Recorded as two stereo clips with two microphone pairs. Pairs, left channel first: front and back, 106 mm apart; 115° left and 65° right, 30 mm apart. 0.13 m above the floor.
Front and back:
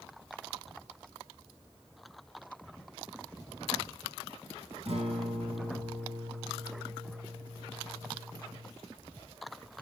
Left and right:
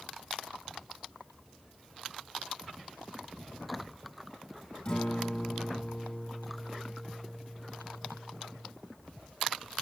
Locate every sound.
4.8 s a guitar: 170° left, 3.5 m